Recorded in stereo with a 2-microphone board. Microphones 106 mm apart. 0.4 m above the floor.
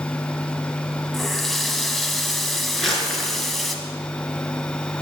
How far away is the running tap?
About 1.8 m.